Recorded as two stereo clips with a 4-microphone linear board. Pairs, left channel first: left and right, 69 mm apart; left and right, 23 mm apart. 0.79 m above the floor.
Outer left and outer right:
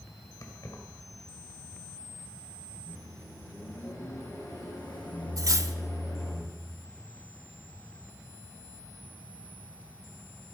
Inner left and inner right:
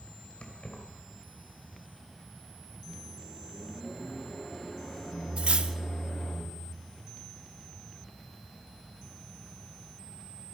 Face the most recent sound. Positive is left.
turn(degrees=-55)  # may be behind; listen again after turning